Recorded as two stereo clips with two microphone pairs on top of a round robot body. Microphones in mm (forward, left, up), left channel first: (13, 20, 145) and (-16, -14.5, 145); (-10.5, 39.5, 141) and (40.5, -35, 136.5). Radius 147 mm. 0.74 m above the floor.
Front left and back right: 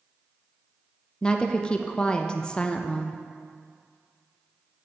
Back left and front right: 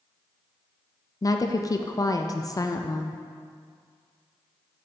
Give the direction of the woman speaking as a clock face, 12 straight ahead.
8 o'clock.